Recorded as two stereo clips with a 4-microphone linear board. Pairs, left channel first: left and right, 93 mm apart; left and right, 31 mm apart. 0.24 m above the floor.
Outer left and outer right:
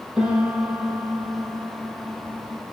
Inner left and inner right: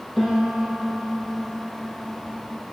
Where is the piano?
10° right (ahead or behind), 1.8 m.